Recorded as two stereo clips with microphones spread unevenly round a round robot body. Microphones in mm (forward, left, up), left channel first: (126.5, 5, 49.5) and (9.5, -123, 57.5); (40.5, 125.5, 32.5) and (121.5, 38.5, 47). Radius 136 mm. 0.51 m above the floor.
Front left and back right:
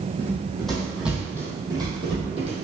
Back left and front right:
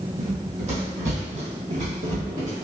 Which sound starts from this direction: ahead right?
Running footsteps, at 0.2 s.